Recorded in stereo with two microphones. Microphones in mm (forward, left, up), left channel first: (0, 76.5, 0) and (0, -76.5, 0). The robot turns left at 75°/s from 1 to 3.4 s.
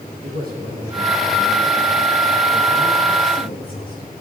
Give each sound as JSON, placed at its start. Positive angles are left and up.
{"t": 0.2, "sound": "a man speaking", "azimuth_deg": -80, "distance_m": 5.0}